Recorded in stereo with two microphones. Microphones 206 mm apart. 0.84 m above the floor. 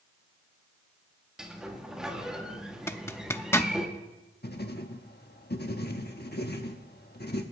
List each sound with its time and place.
1.4 s a sliding door: 5° right (ahead or behind), 1.9 m
2.9 s a zipper: 10° left (ahead or behind), 0.6 m
4.4 s writing: 50° left (ahead or behind), 1.3 m